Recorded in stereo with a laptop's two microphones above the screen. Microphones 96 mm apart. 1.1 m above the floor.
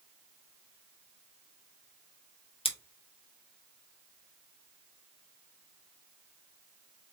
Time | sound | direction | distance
2.6 | scissors | 75° left (ahead or behind) | 0.8 m